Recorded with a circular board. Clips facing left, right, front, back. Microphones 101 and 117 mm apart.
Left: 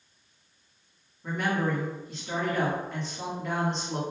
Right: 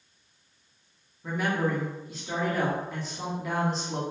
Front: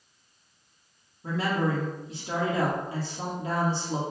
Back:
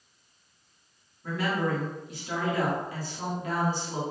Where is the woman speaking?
5° right, 1.1 m.